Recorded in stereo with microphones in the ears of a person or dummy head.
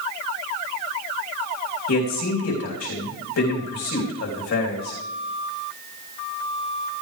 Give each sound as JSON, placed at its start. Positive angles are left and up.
{"t": 1.9, "sound": "a man speaking", "side_deg": 75, "distance_m": 3.0}